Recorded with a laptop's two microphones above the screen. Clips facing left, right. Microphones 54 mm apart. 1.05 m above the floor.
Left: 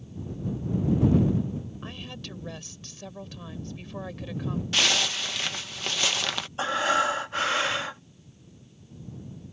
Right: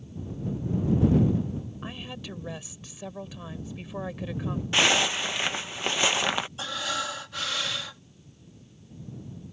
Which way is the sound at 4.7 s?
20° right (ahead or behind).